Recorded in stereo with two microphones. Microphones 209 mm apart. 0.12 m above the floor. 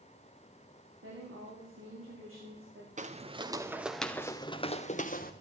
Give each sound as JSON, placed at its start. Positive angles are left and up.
{"t": 1.0, "sound": "a woman speaking", "side_deg": -80, "distance_m": 9.0}
{"t": 3.0, "sound": "footsteps", "side_deg": -35, "distance_m": 1.5}